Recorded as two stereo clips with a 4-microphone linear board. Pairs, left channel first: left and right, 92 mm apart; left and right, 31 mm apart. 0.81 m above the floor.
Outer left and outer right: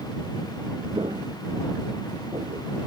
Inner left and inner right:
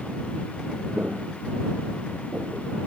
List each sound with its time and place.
0.9 s footsteps: 60° right (ahead or behind); by 2.7 s 75° right (ahead or behind)